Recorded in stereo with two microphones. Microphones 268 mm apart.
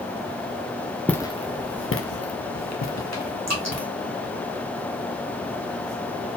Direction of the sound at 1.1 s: 5° left (ahead or behind).